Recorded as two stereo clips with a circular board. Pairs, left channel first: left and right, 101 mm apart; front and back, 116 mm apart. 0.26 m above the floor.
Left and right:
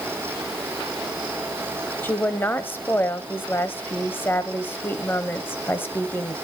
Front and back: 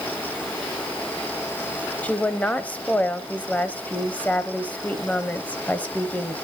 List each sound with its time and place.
2.0 s a woman speaking: 60° left, 0.9 m